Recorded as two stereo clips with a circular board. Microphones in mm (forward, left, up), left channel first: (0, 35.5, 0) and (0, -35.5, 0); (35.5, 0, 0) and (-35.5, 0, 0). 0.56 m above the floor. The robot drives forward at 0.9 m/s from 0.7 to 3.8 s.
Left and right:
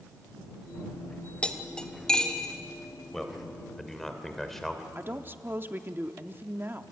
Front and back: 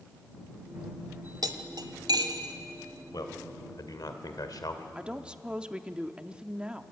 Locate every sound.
1.4 s cutlery clinking: 165° left, 1.2 m; by 2.5 s 170° left, 2 m
3.1 s a man speaking: 5° left, 2.5 m
5.0 s a woman speaking: 115° right, 0.8 m